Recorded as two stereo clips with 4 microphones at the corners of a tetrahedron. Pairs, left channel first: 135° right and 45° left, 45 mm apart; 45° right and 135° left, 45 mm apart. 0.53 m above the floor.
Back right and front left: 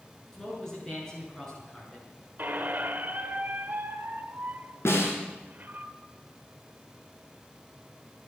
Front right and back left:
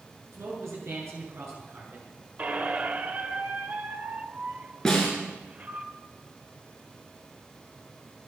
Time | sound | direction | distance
0.3 | a man speaking | 150° left | 7.5 m
2.4 | a squeak | 85° left | 1.2 m
4.8 | a snare drum | 125° right | 5 m